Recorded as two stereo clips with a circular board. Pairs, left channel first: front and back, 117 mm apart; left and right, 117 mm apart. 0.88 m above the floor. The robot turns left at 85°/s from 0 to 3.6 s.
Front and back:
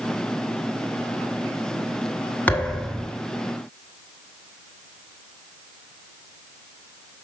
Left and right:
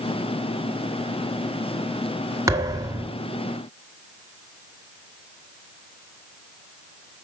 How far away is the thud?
About 0.9 m.